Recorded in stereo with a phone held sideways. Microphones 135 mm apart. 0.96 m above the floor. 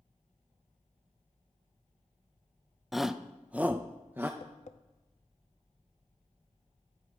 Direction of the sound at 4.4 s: 65° left (ahead or behind).